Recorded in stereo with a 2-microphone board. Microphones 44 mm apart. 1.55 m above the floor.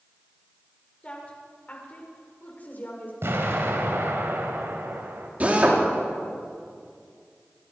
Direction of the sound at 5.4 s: 35° right (ahead or behind).